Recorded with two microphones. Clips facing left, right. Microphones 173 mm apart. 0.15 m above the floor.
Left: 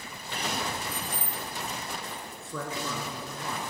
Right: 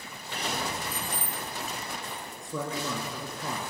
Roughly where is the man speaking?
Centre.